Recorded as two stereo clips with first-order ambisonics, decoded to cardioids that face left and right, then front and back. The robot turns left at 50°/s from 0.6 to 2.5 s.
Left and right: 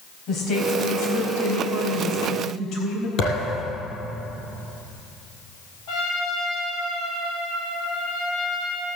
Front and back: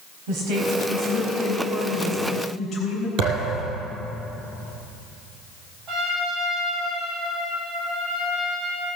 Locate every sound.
0.3 s a woman speaking: 155° left, 4 m; by 3.1 s 60° left, 4 m
3.2 s a thud: 145° left, 3.5 m
5.9 s a trumpet: 115° left, 4.5 m